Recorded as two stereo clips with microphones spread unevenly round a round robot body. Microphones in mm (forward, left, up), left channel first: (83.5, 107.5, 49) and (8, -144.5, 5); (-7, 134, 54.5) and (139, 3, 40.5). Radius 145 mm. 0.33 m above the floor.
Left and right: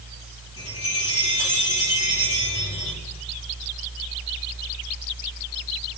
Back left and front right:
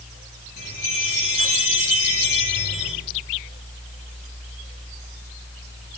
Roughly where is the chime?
Behind left.